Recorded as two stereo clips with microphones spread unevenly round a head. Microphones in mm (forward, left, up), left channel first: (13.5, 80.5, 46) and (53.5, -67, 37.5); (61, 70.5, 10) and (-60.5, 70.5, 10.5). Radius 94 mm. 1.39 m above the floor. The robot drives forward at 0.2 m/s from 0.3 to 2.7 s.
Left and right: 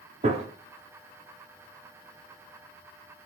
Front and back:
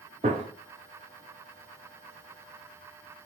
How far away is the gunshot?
About 0.6 m.